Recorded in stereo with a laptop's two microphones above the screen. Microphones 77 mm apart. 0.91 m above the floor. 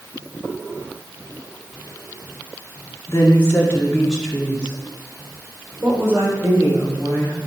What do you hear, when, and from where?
3.1 s a woman speaking: 35° left (ahead or behind), 1.8 m; by 7.4 s 45° right (ahead or behind), 4 m